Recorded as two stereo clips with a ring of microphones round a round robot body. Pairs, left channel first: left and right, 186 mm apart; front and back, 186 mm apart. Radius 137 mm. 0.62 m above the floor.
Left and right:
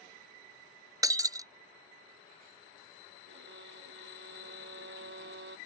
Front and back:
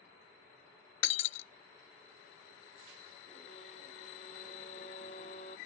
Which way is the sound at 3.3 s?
65° right.